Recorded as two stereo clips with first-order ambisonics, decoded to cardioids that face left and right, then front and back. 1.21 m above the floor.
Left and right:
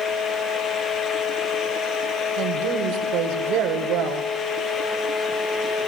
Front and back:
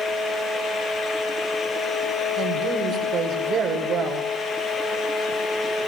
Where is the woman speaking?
125° right, 5 m.